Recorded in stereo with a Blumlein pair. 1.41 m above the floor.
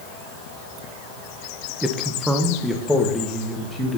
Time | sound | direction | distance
1.8 | a man speaking | 10° right | 1.1 m